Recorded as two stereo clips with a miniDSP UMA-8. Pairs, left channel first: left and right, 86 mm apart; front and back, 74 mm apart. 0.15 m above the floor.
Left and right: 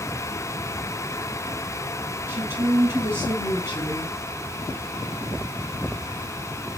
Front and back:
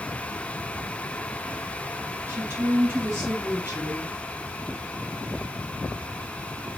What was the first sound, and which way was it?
A woman speaking, 140° right.